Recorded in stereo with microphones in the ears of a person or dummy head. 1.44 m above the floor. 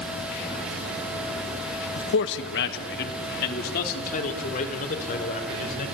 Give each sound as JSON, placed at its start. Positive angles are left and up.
{"t": 2.0, "sound": "a man speaking", "side_deg": 80, "distance_m": 1.4}